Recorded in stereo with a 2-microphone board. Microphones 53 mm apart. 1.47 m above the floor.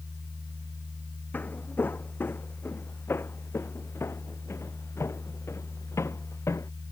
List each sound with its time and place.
1.3 s footsteps: 35° left (ahead or behind); by 6.7 s 65° left (ahead or behind)